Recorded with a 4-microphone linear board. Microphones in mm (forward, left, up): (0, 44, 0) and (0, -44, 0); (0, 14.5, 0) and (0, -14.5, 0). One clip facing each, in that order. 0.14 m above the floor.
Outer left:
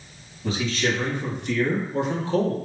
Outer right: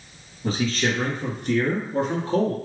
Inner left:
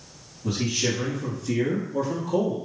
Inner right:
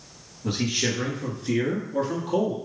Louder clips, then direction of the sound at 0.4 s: Outer right 1 dB, even; 40° right (ahead or behind).